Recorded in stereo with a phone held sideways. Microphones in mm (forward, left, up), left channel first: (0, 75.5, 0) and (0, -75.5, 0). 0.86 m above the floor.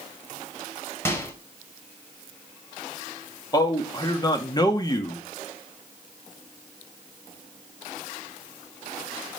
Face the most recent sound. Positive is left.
turn(degrees=25)  # may be behind; listen again after turning